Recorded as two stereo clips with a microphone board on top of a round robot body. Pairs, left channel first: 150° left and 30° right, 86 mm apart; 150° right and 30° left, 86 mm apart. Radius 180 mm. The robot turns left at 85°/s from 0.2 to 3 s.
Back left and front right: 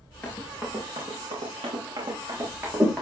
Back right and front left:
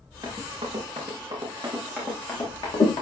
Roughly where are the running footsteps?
Left.